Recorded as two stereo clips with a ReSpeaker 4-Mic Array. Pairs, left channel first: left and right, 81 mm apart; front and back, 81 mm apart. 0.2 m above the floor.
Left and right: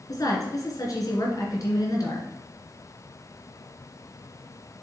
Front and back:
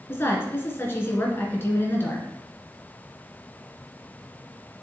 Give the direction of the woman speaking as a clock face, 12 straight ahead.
10 o'clock.